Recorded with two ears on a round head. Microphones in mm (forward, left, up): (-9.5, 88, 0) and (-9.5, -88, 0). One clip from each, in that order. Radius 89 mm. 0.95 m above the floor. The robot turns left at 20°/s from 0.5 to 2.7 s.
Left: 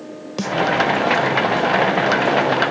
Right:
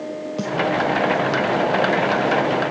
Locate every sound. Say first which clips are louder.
0.4 s a snare drum: left 4 dB; 60° left (ahead or behind), 1.5 m